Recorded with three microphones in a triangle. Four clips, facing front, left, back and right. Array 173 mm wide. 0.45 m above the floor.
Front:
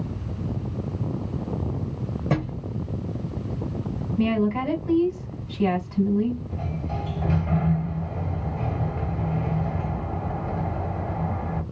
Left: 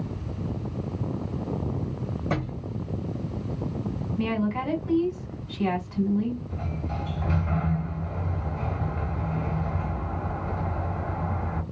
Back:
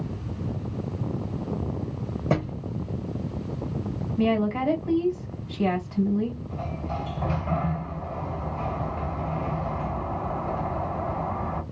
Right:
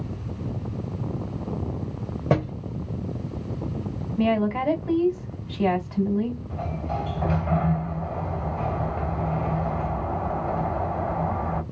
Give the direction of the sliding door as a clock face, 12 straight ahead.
3 o'clock.